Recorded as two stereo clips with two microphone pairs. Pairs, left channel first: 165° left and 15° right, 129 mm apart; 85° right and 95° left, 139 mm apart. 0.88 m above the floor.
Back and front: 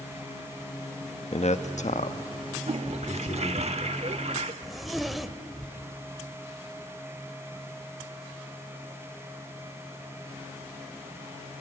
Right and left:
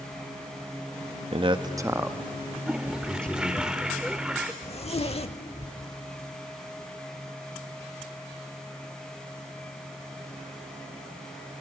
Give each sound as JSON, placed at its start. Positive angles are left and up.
{"t": 1.3, "sound": "a man speaking", "azimuth_deg": 135, "distance_m": 0.9}
{"t": 2.7, "sound": "a toilet flushing", "azimuth_deg": 15, "distance_m": 0.9}
{"t": 4.6, "sound": "a zipper", "azimuth_deg": -105, "distance_m": 0.8}